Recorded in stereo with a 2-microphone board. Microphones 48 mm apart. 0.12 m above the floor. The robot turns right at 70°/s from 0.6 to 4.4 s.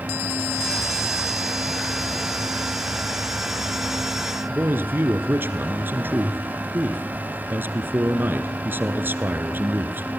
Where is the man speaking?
45° right (ahead or behind), 1.9 m.